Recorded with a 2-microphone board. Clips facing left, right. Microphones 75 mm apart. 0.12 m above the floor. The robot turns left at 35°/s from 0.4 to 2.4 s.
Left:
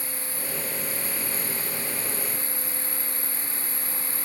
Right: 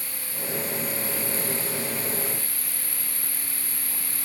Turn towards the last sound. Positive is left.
turn(degrees=20)